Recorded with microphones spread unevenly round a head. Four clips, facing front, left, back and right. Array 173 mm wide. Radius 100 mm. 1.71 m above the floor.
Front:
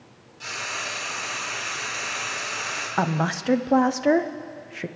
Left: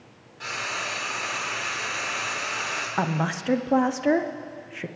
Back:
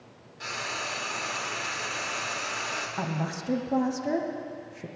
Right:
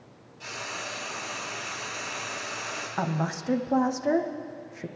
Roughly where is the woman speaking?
Ahead left.